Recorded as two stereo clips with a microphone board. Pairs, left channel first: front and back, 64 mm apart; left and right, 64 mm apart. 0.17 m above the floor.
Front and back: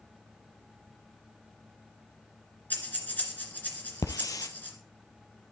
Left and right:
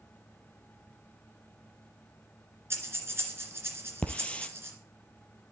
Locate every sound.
2.7 s breathing: 55° right, 2 m
4.0 s a hiss: 20° left, 0.9 m